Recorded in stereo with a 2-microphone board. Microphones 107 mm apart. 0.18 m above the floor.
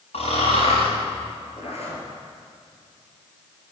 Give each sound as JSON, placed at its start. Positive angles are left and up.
{"t": 0.1, "sound": "snoring", "side_deg": 75, "distance_m": 5.0}
{"t": 1.6, "sound": "a zipper", "side_deg": 70, "distance_m": 3.0}